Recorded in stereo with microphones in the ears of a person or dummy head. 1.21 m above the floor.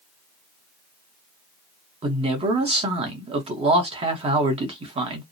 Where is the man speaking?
35° right (ahead or behind), 0.9 m.